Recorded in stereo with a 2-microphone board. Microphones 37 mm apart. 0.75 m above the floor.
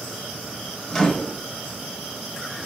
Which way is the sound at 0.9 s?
20° left (ahead or behind).